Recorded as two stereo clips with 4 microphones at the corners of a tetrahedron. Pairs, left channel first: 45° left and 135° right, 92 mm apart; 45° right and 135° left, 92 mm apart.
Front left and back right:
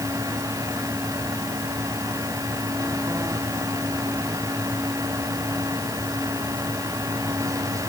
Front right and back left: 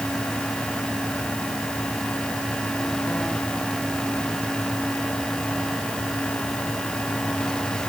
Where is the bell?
I don't hear a bell.